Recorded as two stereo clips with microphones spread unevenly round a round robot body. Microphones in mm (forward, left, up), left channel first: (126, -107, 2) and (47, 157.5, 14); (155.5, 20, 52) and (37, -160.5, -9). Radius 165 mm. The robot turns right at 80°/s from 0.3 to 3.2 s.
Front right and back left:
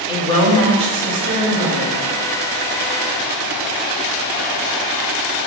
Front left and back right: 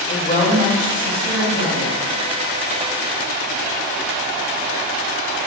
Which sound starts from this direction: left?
A woman speaking, at 0.1 s.